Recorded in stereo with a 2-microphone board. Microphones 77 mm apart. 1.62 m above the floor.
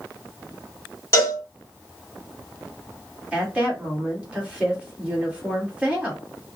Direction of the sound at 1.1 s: 40° left (ahead or behind).